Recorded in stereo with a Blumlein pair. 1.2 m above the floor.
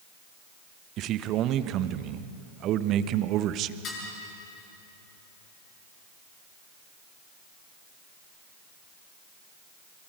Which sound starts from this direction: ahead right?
A man speaking, at 1.0 s.